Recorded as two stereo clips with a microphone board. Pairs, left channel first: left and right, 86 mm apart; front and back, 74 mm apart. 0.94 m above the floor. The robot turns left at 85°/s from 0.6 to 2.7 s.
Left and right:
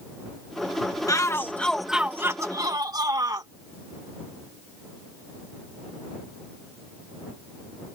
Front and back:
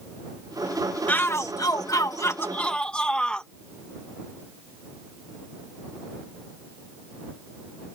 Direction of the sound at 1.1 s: 60° left.